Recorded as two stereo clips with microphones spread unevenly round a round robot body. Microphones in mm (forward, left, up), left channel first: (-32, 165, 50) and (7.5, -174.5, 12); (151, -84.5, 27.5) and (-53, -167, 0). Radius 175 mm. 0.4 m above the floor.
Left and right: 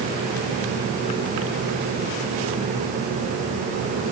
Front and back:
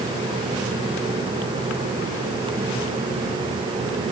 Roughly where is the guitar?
No guitar in this recording.